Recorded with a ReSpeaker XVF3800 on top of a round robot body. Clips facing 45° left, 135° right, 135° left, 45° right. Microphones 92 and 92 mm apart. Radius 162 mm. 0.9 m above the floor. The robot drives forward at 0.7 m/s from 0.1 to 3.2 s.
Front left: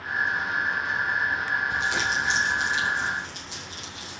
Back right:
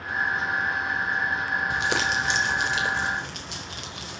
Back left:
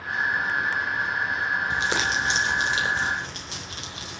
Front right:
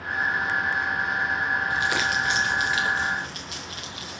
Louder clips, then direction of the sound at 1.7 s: Back right 1 dB, even; 160° right.